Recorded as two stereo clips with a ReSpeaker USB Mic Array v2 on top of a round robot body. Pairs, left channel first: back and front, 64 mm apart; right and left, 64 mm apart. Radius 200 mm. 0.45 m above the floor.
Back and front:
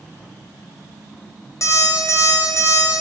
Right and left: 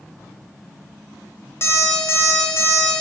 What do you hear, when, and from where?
1.6 s an alarm clock: 140° right, 1.2 m